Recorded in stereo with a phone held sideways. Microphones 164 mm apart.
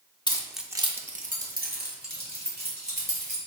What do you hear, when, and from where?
0.3 s keys jangling: 25° left (ahead or behind), 0.6 m; by 3.4 s 80° right, 2.5 m